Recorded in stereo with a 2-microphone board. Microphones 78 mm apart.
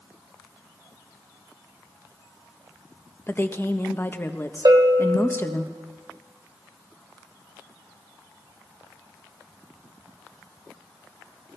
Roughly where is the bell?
Right.